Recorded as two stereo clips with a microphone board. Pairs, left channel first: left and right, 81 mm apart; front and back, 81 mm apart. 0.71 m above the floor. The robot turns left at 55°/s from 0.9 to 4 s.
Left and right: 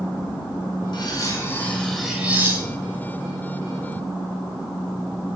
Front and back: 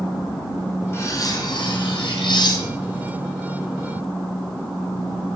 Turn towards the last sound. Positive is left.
turn(degrees=-110)